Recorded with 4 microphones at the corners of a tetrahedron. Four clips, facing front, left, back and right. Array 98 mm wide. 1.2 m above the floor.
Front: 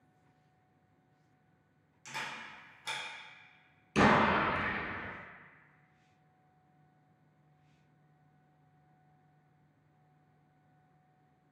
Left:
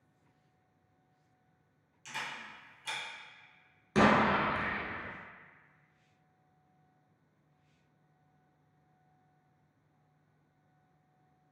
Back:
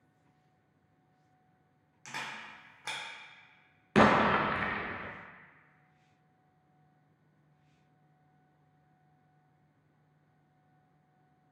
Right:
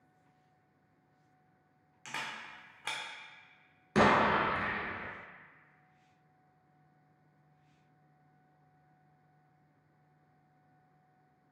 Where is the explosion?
175° right, 0.6 m.